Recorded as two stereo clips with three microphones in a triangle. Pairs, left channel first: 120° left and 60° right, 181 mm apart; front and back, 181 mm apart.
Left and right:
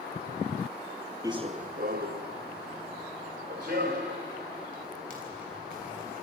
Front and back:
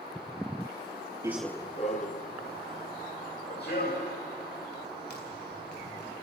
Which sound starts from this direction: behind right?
Running footsteps, at 1.2 s.